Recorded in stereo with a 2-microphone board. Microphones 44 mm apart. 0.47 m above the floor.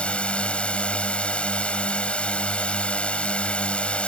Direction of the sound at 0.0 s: 25° left (ahead or behind).